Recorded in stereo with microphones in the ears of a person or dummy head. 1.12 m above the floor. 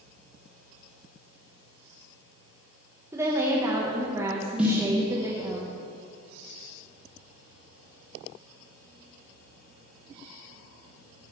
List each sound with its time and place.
3.1 s a woman speaking: 15° right (ahead or behind), 1.1 m
4.6 s a snare drum: 5° right (ahead or behind), 1.4 m